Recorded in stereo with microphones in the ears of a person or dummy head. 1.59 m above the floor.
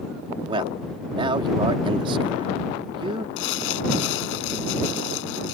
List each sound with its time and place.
0.5 s a man speaking: 35° right (ahead or behind)
3.4 s crumpling: 70° left (ahead or behind)